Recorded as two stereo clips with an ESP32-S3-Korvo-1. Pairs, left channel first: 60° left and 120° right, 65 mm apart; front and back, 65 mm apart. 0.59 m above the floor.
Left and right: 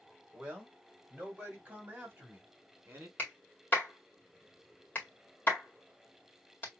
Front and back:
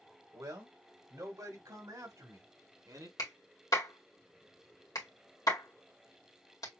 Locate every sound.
0.3 s a man speaking: 165° left, 3.5 m; by 3.1 s straight behind, 2.5 m
3.2 s a clap: straight ahead, 2 m